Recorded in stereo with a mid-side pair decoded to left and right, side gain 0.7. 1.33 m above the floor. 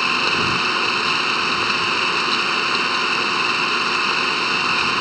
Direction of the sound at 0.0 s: 5° right.